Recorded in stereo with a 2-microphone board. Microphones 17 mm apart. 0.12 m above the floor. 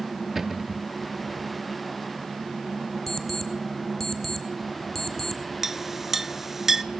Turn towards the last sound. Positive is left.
turn(degrees=-15)  # may be behind; listen again after turning